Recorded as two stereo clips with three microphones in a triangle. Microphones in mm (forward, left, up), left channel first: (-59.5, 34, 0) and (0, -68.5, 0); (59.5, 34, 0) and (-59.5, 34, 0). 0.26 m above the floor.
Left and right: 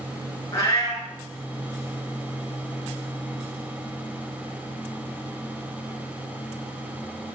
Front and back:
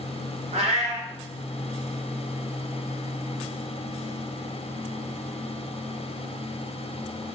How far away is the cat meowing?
About 1.3 m.